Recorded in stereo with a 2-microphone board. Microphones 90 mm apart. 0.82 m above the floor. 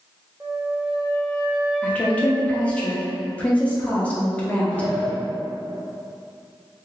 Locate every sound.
0.4 s a flute: 15° right (ahead or behind), 0.5 m
1.8 s a woman speaking: 15° left (ahead or behind), 0.7 m
4.7 s a sliding door: 25° left (ahead or behind), 1.0 m